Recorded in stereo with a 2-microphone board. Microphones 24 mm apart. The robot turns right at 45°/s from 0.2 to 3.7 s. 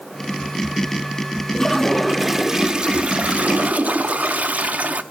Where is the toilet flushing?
155° left, 0.7 m; by 5.0 s 105° right, 0.7 m.